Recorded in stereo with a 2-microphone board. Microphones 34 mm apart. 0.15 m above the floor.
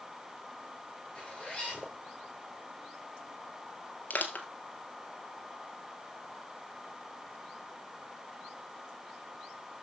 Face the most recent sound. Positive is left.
turn(degrees=50)  # may be behind; listen again after turning